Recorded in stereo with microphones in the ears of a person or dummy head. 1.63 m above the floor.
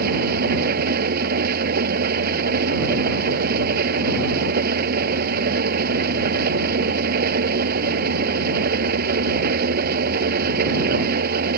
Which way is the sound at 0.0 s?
50° right (ahead or behind).